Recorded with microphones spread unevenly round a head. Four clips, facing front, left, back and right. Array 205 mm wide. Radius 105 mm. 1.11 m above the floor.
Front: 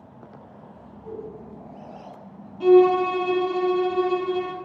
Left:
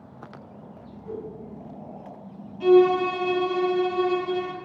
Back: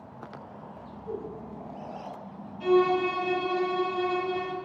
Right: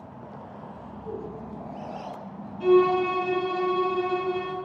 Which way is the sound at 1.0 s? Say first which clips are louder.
Even, even; straight ahead.